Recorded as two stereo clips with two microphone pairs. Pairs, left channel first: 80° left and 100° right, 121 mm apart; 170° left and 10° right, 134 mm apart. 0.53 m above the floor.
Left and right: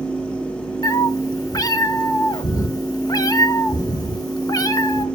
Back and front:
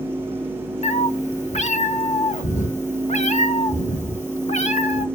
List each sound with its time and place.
0.8 s a cat meowing: 140° left, 0.8 m